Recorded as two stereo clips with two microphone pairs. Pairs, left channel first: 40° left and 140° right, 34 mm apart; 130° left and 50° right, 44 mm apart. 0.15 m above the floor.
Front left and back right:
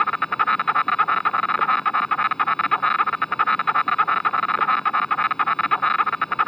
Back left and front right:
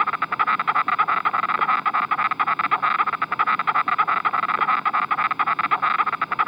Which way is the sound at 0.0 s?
20° left.